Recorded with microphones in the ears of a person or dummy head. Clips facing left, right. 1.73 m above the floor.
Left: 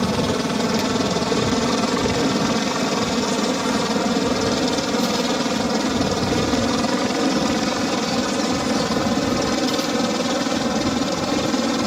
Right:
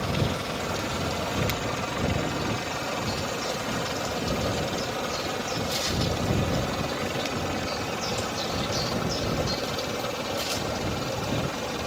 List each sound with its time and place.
0.0 s a helicopter: 65° left (ahead or behind); by 11.9 s 70° left (ahead or behind)